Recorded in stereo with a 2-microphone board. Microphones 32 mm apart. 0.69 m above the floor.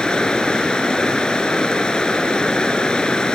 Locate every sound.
0.0 s running water: 25° left (ahead or behind)